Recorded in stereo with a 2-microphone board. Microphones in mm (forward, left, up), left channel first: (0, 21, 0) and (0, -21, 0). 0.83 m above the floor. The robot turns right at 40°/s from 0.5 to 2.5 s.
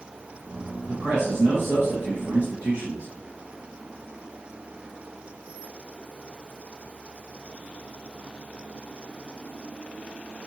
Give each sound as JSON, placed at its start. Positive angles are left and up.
{"t": 0.9, "sound": "a man speaking", "azimuth_deg": -110, "distance_m": 1.1}